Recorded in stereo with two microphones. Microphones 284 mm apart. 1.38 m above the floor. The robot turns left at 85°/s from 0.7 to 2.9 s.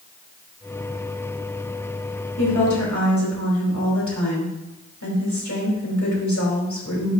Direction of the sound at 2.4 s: 120° left.